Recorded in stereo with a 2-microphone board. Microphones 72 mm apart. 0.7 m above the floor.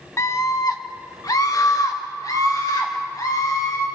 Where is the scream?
40° left (ahead or behind), 1.2 m; by 3.9 s 55° left (ahead or behind), 6.5 m.